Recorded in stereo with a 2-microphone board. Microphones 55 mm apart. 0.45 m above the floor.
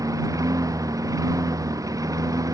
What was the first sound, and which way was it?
A lawn mower, 85° right.